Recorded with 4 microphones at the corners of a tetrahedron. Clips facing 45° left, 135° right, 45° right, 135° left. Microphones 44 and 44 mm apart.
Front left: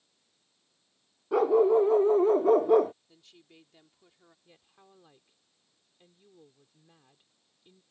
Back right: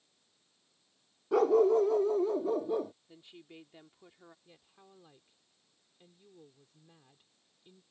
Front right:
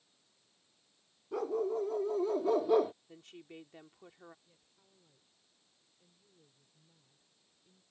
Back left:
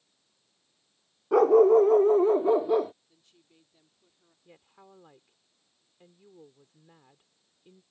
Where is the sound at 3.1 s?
65° right.